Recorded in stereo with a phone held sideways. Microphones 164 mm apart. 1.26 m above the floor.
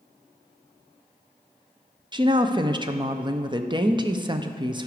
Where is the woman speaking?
30° right (ahead or behind), 0.5 m.